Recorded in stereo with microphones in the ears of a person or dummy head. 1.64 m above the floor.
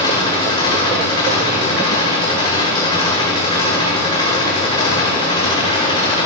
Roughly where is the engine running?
Left.